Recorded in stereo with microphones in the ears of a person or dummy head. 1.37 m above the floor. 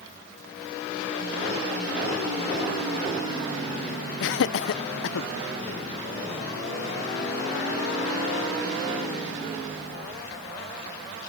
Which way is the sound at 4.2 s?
75° left (ahead or behind).